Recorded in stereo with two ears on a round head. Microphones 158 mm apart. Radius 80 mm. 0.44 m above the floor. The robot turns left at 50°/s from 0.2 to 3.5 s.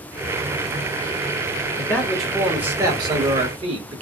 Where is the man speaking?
25° left, 1.2 m; by 4.0 s 60° right, 1.2 m.